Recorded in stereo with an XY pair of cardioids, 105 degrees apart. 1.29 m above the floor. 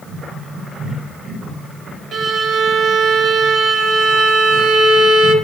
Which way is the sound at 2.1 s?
60° right.